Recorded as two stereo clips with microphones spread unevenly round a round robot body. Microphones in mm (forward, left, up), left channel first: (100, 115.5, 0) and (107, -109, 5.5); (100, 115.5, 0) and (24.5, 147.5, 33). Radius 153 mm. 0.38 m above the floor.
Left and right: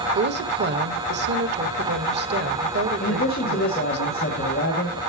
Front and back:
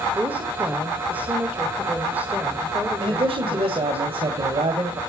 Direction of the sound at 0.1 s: 105° right.